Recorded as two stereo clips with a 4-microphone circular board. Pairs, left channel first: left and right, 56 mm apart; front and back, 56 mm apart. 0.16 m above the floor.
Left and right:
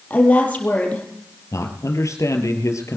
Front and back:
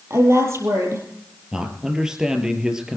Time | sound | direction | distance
0.1 | a woman speaking | 150° left | 5 m
1.5 | a man speaking | 105° left | 3 m